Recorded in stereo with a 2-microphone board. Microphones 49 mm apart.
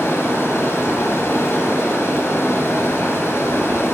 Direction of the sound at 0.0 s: 70° left (ahead or behind).